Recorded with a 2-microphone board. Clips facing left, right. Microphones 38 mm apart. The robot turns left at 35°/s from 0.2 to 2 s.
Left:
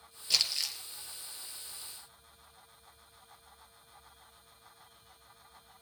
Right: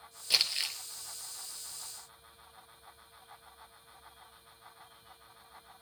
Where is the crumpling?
20° right (ahead or behind), 1.5 m; by 0.8 s 35° right (ahead or behind), 1.5 m.